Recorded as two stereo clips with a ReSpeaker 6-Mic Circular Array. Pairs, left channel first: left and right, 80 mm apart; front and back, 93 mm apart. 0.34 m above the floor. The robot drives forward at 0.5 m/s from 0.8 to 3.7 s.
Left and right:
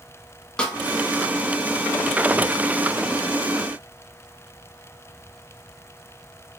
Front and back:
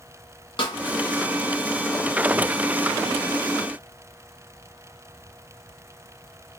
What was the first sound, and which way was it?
A snare drum, 10° left.